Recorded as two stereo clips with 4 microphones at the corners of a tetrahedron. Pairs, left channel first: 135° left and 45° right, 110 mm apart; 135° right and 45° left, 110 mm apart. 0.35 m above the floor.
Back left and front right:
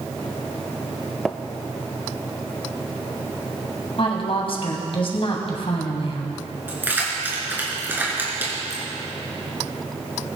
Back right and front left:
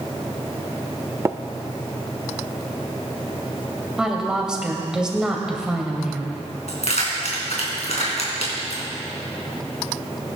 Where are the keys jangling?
115° right, 3.5 m.